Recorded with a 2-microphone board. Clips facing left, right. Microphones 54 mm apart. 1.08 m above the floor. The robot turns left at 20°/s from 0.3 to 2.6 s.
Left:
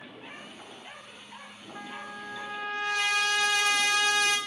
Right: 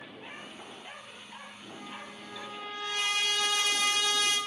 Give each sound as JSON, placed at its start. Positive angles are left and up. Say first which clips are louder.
{"t": 1.8, "sound": "a trumpet", "louder": "left 6 dB", "side_deg": 75, "distance_m": 2.0}